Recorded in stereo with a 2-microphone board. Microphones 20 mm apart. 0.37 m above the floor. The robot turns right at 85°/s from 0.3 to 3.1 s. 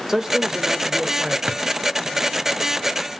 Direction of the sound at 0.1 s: 140° right.